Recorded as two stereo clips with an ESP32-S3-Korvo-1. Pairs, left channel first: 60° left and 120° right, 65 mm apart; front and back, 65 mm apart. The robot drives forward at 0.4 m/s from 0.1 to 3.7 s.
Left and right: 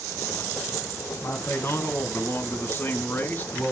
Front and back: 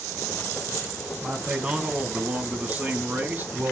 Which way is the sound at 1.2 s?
105° left.